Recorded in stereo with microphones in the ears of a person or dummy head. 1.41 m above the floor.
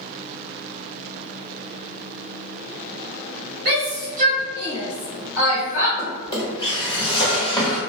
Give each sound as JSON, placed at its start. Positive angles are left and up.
{"t": 3.6, "sound": "a shout", "side_deg": -70, "distance_m": 0.8}
{"t": 6.0, "sound": "a drawer", "side_deg": 15, "distance_m": 1.3}